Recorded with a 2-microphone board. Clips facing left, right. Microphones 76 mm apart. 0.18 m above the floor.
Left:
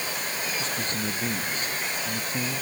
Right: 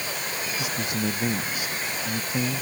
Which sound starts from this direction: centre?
A man speaking, at 0.6 s.